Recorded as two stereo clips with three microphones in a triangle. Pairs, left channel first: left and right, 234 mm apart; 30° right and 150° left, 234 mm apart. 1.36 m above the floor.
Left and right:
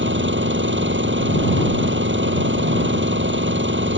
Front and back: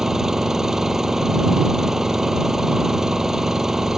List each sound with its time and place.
0.0 s an engine running: 120° right